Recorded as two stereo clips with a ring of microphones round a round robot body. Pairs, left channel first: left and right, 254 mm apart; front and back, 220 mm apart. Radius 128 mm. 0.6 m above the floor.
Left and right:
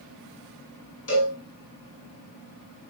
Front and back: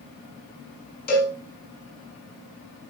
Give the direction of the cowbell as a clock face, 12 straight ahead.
10 o'clock.